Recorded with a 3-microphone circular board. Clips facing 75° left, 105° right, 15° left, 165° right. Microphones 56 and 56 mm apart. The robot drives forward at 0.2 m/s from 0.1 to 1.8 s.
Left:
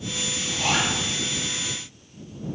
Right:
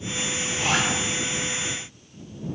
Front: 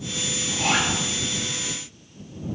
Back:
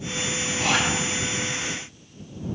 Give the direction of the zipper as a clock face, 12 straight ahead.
2 o'clock.